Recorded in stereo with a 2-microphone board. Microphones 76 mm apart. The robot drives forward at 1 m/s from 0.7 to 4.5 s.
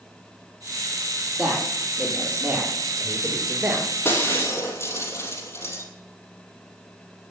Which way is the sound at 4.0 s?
35° left (ahead or behind).